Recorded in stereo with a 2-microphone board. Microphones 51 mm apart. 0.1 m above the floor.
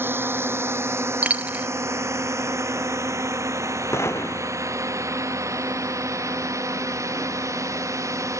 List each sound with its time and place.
0.0 s a drone: 45° right (ahead or behind); by 8.4 s 80° right
1.2 s a dropped coin: 30° right (ahead or behind)
3.9 s a gunshot: 60° left (ahead or behind)